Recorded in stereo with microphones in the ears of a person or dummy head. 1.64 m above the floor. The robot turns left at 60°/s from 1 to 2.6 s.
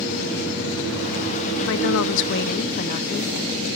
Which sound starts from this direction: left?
A woman speaking, at 1.6 s.